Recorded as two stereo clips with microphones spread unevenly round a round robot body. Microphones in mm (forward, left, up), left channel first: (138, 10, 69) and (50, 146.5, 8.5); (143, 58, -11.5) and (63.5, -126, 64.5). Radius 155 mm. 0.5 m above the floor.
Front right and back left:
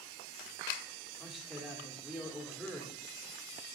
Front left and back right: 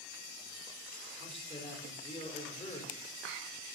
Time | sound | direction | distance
1.2 | a man speaking | 50° left | 1.5 m